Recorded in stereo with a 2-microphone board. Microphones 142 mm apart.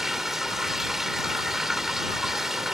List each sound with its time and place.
0.0 s running water: centre (ahead or behind)